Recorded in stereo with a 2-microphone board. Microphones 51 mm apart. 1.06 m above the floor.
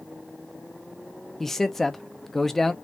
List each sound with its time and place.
1.4 s a man speaking: 10° left (ahead or behind), 0.5 m